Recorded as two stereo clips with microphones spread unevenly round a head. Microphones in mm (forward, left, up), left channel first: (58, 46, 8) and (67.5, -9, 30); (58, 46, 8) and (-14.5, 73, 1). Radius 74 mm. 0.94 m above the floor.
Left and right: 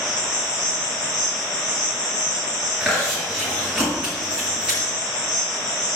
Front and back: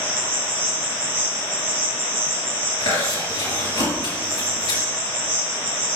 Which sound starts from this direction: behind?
An insect, at 0.0 s.